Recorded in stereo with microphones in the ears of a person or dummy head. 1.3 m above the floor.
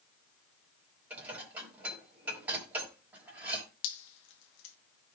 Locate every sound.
1.1 s dishes clattering: 10° right (ahead or behind), 5.5 m
3.8 s dripping: 80° left, 1.5 m